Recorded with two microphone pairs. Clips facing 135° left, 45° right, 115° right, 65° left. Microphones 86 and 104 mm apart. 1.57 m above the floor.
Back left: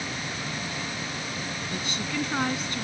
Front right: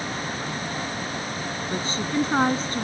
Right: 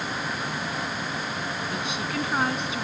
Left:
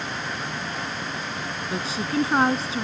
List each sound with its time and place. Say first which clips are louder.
1.7 s a woman speaking: front right 7 dB, left 7 dB; 10° left